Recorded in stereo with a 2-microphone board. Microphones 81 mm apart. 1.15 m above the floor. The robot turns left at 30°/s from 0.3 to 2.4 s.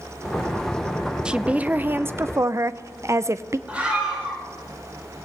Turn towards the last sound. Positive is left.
turn(degrees=-15)  # may be behind; listen again after turning